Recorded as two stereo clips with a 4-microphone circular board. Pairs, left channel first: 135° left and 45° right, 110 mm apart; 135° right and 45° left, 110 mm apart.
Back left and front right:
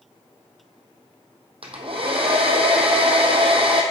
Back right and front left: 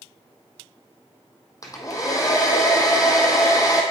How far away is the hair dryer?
About 1.2 m.